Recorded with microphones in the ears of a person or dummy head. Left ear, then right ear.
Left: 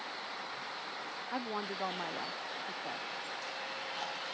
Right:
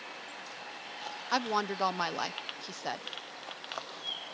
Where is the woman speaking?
65° right (ahead or behind).